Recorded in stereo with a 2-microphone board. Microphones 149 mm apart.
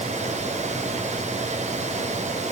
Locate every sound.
Only background noise.